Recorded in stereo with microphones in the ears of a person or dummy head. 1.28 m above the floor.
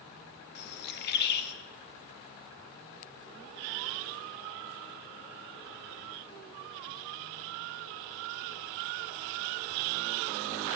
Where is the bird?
55° left (ahead or behind), 2.5 m.